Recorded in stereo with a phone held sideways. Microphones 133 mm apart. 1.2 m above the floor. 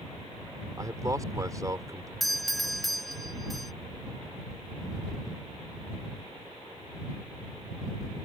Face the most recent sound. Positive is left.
turn(degrees=0)  # may be behind; listen again after turning